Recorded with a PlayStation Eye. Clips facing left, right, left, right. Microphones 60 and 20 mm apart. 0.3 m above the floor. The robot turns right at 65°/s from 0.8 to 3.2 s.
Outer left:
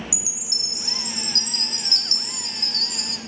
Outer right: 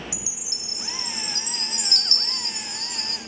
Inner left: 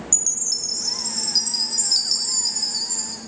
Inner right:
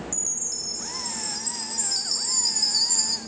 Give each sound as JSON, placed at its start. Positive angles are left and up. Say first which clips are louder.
{"t": 0.1, "sound": "a chime", "louder": "outer left 2 dB, inner left 10 dB", "azimuth_deg": 70, "distance_m": 1.2}